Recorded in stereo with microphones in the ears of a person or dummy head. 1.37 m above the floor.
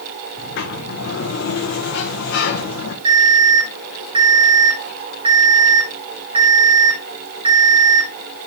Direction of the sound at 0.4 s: 65° left (ahead or behind).